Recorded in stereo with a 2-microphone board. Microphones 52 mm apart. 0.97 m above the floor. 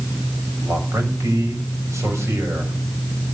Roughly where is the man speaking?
Right.